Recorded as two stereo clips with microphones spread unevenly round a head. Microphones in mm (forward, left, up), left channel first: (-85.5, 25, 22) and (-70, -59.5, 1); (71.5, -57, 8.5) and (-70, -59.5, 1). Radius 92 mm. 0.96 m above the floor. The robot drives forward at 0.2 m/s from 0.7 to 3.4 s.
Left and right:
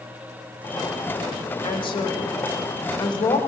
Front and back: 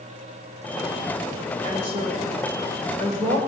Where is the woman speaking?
125° left, 1.3 m; by 3.4 s 135° left, 1.5 m.